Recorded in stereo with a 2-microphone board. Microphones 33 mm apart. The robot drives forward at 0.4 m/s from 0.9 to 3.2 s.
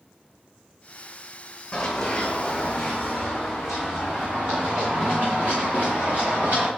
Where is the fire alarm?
I don't hear a fire alarm.